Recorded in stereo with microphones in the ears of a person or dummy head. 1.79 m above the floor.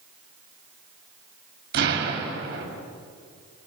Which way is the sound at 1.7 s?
60° right (ahead or behind).